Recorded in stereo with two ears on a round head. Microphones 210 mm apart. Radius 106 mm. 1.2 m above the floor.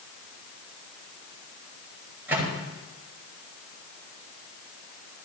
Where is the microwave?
10° right (ahead or behind), 6.5 m.